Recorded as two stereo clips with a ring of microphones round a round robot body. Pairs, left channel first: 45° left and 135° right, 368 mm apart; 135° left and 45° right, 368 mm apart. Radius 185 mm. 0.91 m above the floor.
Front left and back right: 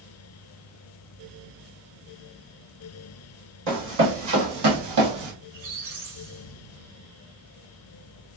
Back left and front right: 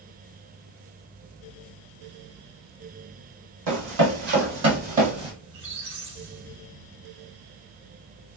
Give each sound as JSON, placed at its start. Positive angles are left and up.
{"t": 3.7, "sound": "running footsteps", "azimuth_deg": -80, "distance_m": 1.7}
{"t": 5.4, "sound": "a squeak", "azimuth_deg": -80, "distance_m": 1.5}